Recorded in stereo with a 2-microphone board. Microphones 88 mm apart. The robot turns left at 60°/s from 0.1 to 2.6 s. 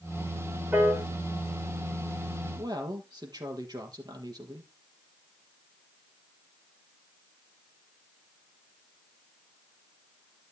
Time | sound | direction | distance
0.7 | a piano | 15° right (ahead or behind) | 7 m
2.6 | a woman speaking | 55° right (ahead or behind) | 4 m